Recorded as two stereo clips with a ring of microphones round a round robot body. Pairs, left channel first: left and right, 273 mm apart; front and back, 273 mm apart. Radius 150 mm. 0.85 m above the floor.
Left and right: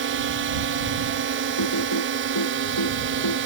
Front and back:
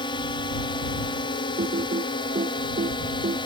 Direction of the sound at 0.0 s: 70° right.